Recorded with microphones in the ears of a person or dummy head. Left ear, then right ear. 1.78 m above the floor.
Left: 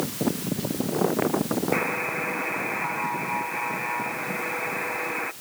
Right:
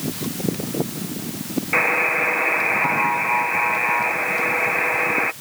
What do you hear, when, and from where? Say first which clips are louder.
1.7 s a buzzer: right 12 dB; 30° right (ahead or behind)